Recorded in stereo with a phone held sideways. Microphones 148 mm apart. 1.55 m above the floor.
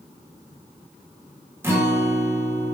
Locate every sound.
1.6 s a guitar: 15° right (ahead or behind), 0.7 m